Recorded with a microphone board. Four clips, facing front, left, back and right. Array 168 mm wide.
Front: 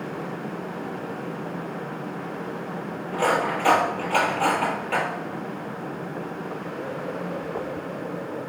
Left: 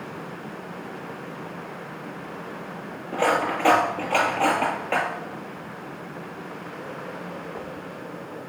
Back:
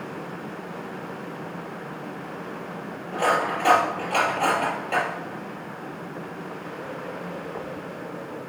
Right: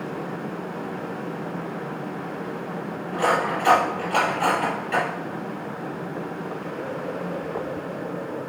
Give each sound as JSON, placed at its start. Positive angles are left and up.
{"t": 3.1, "sound": "cutlery clinking", "azimuth_deg": 95, "distance_m": 3.0}